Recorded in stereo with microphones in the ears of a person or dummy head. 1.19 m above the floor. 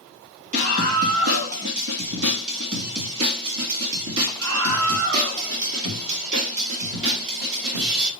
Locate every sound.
0.5 s a scream: 40° right (ahead or behind), 1.6 m; by 8.1 s 65° right (ahead or behind), 5 m